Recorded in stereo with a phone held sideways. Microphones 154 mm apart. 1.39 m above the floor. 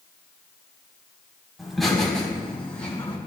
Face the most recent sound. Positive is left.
turn(degrees=10)  # may be behind; listen again after turning